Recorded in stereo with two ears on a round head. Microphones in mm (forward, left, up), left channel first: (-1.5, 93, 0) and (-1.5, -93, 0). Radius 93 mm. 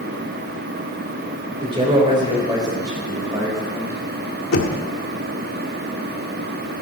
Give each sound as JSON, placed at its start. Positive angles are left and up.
{"t": 1.6, "sound": "a man speaking", "side_deg": -25, "distance_m": 3.5}
{"t": 4.5, "sound": "knocking", "side_deg": 70, "distance_m": 1.8}